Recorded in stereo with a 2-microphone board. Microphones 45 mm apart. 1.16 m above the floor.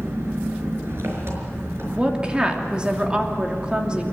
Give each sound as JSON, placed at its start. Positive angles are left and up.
{"t": 0.0, "sound": "an engine running", "side_deg": -65, "distance_m": 5.0}
{"t": 1.9, "sound": "a woman speaking", "side_deg": -25, "distance_m": 3.0}